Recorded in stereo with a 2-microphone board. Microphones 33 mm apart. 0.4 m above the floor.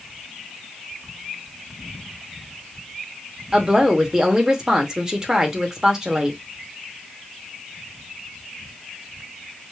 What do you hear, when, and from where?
3.5 s a woman speaking: 20° right (ahead or behind), 0.8 m